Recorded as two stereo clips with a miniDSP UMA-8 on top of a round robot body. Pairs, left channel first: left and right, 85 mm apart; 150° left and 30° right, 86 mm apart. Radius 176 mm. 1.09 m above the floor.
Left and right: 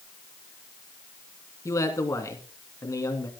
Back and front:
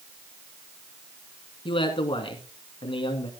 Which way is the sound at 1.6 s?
140° left.